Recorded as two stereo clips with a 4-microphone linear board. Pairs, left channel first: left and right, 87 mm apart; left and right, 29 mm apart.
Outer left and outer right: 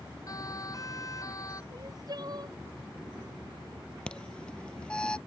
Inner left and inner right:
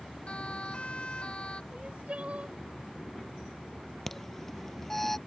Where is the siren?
40° left (ahead or behind).